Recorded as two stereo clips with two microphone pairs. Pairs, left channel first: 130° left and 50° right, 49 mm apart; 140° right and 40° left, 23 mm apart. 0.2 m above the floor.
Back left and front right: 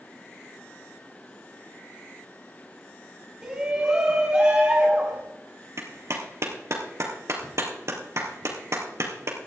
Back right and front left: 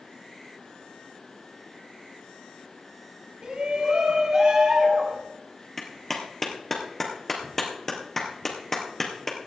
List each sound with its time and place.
3.4 s a shout: 25° left, 1.8 m; by 5.2 s 10° left, 3 m
5.8 s a clap: 65° right, 3 m